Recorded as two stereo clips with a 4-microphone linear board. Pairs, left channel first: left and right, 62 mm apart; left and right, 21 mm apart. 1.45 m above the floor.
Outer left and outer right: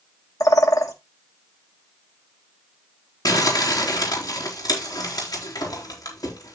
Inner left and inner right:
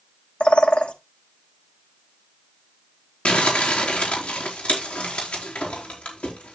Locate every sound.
0.4 s a bird: 60° left (ahead or behind), 1.4 m
3.2 s crumpling: 75° left (ahead or behind), 4 m